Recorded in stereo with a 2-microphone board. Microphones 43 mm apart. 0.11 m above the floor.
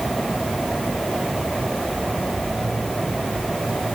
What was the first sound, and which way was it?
Only background noise.